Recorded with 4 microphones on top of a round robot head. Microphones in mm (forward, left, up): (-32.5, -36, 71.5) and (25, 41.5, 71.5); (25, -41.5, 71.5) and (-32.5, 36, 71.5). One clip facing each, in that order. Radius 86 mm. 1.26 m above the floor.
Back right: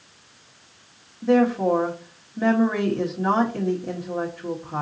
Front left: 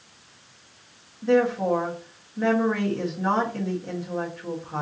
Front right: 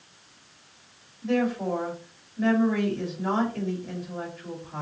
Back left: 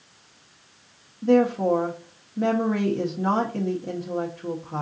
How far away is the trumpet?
No trumpet in this recording.